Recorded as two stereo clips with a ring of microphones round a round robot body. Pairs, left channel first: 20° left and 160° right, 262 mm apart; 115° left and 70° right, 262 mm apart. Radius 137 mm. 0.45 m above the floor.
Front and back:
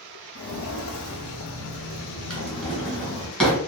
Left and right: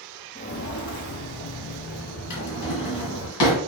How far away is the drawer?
About 2 m.